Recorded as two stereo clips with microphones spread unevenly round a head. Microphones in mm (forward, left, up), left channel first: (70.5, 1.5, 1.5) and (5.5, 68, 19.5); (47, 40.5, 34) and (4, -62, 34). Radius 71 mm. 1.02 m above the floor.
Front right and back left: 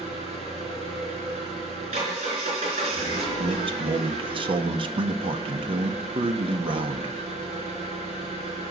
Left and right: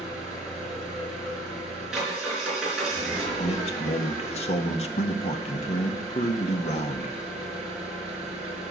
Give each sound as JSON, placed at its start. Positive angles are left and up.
{"t": 0.0, "sound": "an engine running", "azimuth_deg": 160, "distance_m": 4.0}
{"t": 3.4, "sound": "a man speaking", "azimuth_deg": 100, "distance_m": 1.3}